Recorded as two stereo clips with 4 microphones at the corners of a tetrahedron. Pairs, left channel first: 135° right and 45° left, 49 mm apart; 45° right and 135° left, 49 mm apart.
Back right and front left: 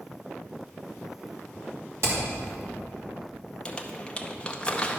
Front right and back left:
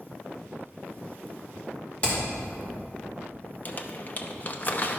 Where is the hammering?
15° left, 2.5 m.